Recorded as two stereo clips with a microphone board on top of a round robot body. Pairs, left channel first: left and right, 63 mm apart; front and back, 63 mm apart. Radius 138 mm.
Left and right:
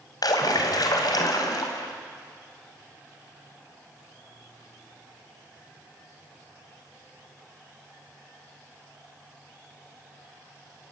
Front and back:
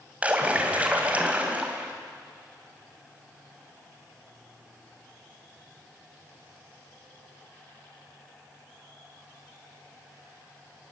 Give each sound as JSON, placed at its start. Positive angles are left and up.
{"t": 0.2, "sound": "a splash", "azimuth_deg": 110, "distance_m": 2.5}